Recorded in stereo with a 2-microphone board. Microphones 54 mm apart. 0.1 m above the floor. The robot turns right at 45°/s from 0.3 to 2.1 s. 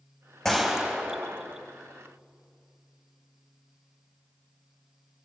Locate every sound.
0.5 s a gunshot: 170° left, 4 m; by 1.6 s 140° right, 4 m